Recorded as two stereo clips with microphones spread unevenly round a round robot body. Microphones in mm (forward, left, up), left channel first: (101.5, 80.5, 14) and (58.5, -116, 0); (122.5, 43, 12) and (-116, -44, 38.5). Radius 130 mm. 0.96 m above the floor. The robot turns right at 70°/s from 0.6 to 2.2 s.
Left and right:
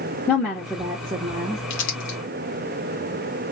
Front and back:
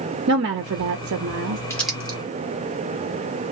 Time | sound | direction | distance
0.3 | a woman speaking | 165° left | 0.8 m
1.7 | crumpling | 95° left | 1.6 m